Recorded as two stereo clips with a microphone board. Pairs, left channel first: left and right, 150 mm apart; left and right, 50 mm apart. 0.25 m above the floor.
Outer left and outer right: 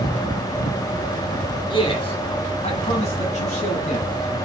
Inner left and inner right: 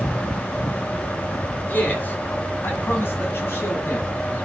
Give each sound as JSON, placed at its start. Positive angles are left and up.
{"t": 1.7, "sound": "a man speaking", "side_deg": 35, "distance_m": 1.8}